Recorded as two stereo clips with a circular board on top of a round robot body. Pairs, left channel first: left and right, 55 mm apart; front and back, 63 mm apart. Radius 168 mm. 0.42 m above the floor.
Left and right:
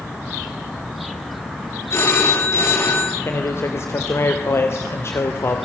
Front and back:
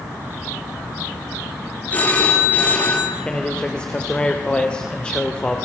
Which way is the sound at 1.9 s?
60° left.